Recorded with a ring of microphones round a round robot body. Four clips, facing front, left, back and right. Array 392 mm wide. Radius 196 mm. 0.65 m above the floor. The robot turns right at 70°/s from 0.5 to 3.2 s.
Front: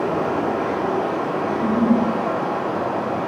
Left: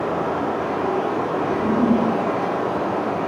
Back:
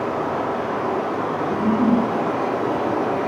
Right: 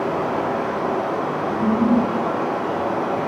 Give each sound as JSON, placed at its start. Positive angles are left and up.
{"t": 0.0, "sound": "running water", "azimuth_deg": -15, "distance_m": 3.0}
{"t": 1.5, "sound": "a giggle", "azimuth_deg": -20, "distance_m": 1.8}